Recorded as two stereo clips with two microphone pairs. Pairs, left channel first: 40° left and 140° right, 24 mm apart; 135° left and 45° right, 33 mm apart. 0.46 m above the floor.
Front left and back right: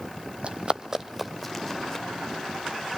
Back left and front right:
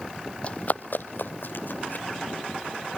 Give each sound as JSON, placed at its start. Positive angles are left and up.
{"t": 0.4, "sound": "running footsteps", "azimuth_deg": -170, "distance_m": 1.1}